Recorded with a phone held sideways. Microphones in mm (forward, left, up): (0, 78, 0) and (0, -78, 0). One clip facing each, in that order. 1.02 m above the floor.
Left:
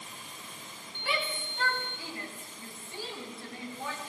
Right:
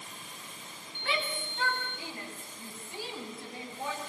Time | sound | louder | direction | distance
1.0 | a shout | even | 5° left (ahead or behind) | 9.5 m